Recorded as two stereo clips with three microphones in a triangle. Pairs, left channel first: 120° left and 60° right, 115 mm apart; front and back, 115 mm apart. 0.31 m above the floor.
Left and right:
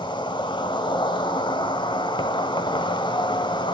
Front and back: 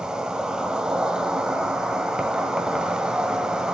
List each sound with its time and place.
0.0 s an insect: 100° left, 1.4 m